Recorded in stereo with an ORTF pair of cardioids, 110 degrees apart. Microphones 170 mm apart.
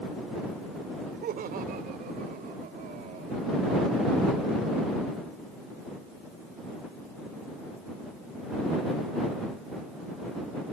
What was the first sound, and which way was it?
Laughter, 65° right.